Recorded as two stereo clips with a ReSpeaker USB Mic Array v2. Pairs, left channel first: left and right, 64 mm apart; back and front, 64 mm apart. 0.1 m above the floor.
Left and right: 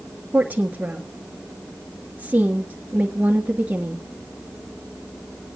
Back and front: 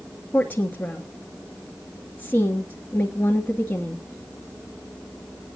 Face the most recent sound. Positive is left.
turn(degrees=-135)